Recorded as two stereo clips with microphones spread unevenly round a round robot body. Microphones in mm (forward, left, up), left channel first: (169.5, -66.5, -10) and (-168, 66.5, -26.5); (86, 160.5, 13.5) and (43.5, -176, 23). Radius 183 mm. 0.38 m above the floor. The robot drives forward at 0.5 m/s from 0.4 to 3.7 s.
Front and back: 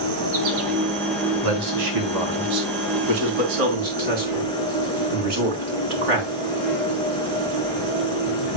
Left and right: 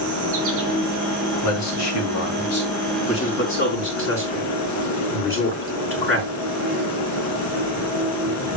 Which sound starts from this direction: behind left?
A man speaking, at 1.4 s.